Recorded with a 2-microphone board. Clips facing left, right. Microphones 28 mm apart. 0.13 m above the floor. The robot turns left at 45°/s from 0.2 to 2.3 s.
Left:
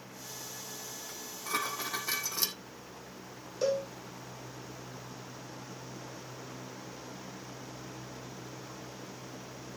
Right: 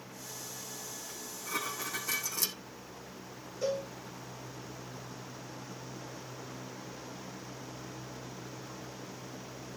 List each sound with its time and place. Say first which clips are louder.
1.1 s dishes clattering: left 3 dB; 85° left, 4 m; by 2.6 s 30° left, 4 m
3.6 s a cowbell: left 3 dB; 80° left, 3.5 m